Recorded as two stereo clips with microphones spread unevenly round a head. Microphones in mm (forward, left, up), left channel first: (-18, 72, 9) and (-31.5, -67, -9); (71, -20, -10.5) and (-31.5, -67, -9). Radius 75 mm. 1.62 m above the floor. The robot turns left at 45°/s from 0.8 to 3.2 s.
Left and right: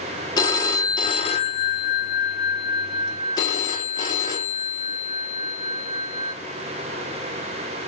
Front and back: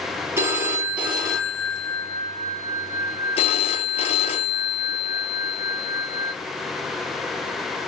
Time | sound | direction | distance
0.4 | a phone ringing | 135° left | 1.0 m